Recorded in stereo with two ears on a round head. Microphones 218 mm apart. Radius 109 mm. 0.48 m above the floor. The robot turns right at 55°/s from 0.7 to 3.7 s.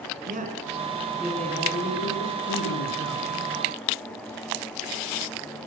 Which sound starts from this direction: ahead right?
A man speaking, at 0.3 s.